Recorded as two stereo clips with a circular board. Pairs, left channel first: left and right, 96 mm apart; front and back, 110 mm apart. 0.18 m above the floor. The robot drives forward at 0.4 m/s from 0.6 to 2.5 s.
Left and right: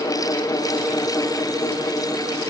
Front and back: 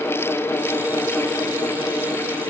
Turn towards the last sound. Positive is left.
No sound to turn to.